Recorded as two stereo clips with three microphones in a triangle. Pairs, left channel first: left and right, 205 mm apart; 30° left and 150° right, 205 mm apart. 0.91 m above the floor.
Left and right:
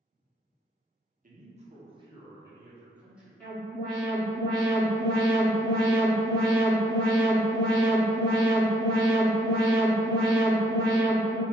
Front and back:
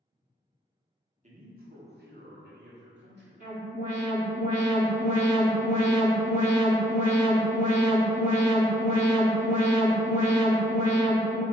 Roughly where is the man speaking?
Behind right.